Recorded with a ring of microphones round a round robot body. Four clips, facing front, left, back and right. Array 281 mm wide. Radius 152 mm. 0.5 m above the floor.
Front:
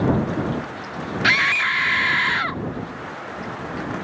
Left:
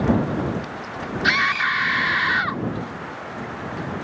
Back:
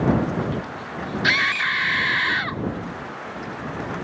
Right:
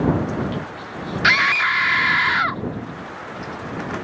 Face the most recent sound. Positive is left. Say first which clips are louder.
# right 3 dB, front 2 dB
turn(degrees=-70)